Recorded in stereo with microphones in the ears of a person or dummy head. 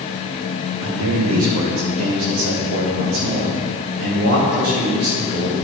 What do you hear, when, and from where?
0.8 s a man speaking: 75° right (ahead or behind), 1.6 m; by 5.5 s 85° right, 4.5 m